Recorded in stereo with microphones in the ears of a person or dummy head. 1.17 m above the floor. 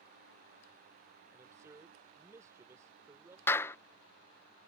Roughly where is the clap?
Centre.